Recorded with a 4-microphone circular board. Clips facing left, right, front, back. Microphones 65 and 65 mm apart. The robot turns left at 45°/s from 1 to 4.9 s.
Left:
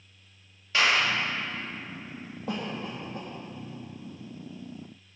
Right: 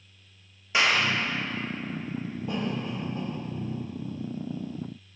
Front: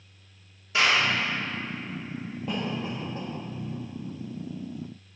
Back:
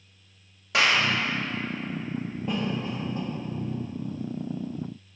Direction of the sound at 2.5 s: 90° left.